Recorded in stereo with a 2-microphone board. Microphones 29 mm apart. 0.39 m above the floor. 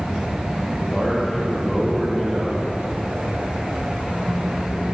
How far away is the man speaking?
About 9.5 m.